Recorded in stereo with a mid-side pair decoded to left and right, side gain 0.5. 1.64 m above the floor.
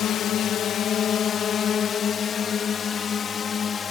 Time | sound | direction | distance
0.0 | a drone | 65° left | ?